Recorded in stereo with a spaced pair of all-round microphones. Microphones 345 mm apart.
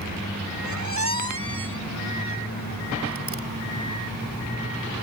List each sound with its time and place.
0.6 s a squeak: 50° right (ahead or behind)